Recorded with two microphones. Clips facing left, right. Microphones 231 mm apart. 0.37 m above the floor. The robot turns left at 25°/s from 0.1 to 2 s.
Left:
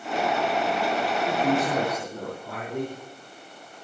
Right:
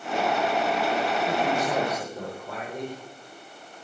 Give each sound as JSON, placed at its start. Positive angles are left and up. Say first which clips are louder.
{"t": 1.2, "sound": "a man speaking", "louder": "left 2 dB", "side_deg": 50, "distance_m": 8.0}